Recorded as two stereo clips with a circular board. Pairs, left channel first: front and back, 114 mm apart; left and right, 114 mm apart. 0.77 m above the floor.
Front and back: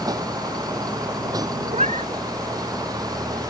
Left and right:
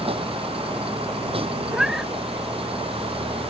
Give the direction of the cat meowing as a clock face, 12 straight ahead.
6 o'clock.